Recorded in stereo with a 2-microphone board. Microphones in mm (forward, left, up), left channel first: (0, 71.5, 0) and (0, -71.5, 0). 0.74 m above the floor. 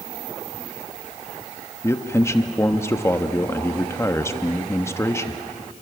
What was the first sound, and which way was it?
A man speaking, 20° left (ahead or behind).